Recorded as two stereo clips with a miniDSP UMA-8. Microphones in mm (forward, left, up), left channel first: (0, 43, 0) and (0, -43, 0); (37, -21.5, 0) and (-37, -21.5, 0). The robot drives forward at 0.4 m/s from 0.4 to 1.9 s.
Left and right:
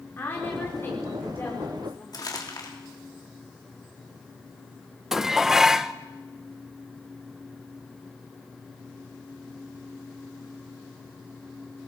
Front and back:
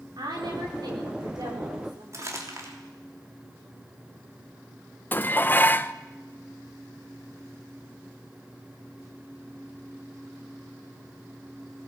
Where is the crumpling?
135° left, 3 m.